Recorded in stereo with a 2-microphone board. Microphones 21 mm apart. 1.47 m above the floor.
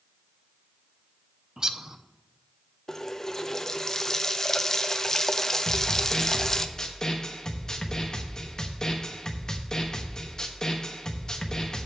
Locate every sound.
1.6 s a bird: 30° right (ahead or behind), 0.5 m
2.9 s a running tap: 20° left (ahead or behind), 0.5 m
5.7 s a snare drum: 30° left (ahead or behind), 1.0 m